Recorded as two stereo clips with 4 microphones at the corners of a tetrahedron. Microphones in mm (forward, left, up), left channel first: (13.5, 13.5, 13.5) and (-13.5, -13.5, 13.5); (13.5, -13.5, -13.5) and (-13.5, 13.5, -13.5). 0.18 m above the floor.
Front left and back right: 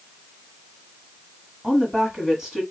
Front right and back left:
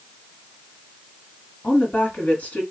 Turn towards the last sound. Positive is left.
turn(degrees=-70)